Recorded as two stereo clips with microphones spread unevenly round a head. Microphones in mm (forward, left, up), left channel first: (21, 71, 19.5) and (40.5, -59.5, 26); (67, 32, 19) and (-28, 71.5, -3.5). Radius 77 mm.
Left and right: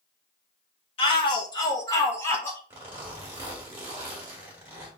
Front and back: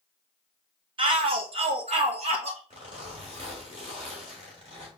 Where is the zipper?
155° right, 1.3 m.